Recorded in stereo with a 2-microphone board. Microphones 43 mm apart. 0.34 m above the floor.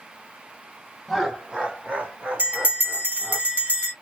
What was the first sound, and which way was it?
Laughter, 5° right (ahead or behind).